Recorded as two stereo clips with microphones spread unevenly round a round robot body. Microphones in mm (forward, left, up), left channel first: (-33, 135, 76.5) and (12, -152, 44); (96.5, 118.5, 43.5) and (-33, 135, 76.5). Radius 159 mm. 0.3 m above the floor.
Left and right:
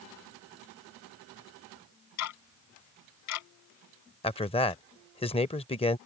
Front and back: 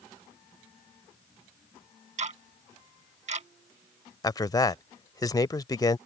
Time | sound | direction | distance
2.2 | ticking | 135° left | ?
4.2 | a man speaking | 30° left | ?